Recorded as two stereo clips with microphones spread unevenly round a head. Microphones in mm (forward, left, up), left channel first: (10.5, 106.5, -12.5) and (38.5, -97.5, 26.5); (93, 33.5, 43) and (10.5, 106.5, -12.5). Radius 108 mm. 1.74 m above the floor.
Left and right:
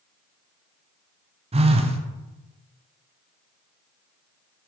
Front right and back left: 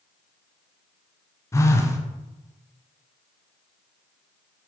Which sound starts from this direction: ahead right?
A phone buzzing, at 1.5 s.